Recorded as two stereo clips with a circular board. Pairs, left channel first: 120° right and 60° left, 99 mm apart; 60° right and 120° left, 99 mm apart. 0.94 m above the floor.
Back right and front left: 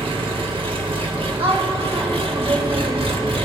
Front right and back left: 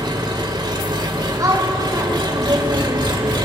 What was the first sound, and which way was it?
An engine running, 80° left.